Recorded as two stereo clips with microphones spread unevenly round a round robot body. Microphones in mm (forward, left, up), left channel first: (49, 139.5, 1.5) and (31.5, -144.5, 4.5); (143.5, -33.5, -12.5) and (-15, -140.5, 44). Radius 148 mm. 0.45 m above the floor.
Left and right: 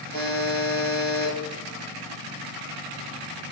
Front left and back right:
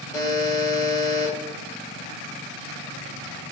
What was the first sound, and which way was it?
A buzzer, 40° right.